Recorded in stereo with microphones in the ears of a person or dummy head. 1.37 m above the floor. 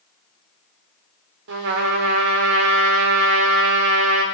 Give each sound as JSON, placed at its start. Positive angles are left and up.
{"t": 1.5, "sound": "a trumpet", "side_deg": -65, "distance_m": 2.5}